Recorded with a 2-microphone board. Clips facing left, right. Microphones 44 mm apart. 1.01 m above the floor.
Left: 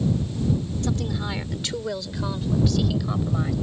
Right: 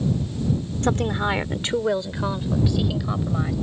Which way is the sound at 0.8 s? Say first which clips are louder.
Right 10 dB; 50° right (ahead or behind).